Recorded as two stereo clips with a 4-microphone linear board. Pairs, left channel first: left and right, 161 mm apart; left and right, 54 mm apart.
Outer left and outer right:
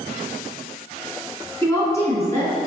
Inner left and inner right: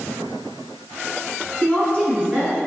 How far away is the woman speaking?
About 1.4 m.